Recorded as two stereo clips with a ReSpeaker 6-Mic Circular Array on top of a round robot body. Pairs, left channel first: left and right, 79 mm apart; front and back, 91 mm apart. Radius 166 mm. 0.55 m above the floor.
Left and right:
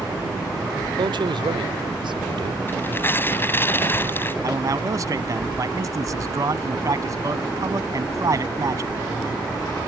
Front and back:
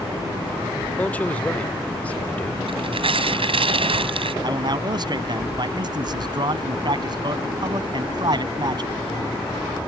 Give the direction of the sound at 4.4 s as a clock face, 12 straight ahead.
5 o'clock.